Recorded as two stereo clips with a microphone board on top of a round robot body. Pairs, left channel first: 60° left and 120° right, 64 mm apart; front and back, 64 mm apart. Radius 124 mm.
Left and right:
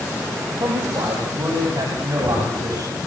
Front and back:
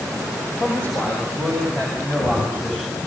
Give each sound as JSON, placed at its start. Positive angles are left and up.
{"t": 0.6, "sound": "a man speaking", "azimuth_deg": -60, "distance_m": 6.5}